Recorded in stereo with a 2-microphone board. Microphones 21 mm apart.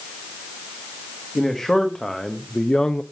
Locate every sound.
1.4 s a man speaking: 5° left (ahead or behind), 1.9 m; by 3.0 s 35° left (ahead or behind), 0.6 m